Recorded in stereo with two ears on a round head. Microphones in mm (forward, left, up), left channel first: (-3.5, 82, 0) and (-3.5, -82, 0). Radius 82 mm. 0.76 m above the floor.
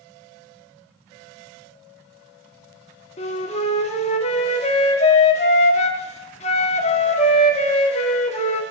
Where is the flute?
35° left (ahead or behind), 1.1 m.